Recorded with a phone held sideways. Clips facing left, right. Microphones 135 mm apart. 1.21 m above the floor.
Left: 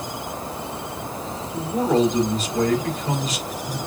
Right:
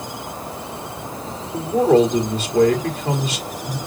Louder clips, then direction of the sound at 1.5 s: Right 6 dB; 75° right (ahead or behind).